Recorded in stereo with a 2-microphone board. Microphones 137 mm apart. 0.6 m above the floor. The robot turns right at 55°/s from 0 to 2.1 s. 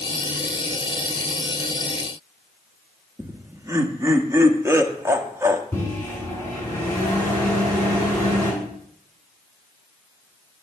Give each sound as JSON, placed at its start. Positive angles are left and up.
{"t": 3.2, "sound": "laughter", "side_deg": -20, "distance_m": 0.7}
{"t": 5.7, "sound": "a microwave", "side_deg": 15, "distance_m": 4.5}